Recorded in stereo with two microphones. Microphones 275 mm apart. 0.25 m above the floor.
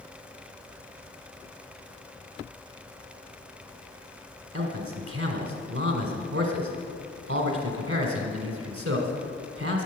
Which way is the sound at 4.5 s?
60° right (ahead or behind).